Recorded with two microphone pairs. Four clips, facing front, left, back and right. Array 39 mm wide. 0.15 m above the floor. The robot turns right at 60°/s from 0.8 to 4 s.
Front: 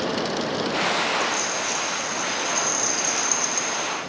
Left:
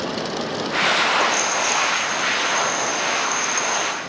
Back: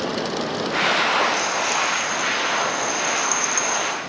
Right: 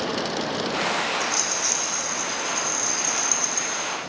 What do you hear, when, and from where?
1.2 s a rattle: 110° right, 6 m; by 4.0 s 55° left, 6 m